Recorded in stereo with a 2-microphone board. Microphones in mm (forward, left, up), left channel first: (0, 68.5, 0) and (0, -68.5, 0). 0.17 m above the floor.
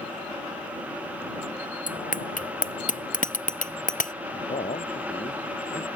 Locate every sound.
1.9 s a bicycle bell: 75° left (ahead or behind); by 4.1 s 70° left (ahead or behind)
4.3 s a man speaking: 70° left (ahead or behind)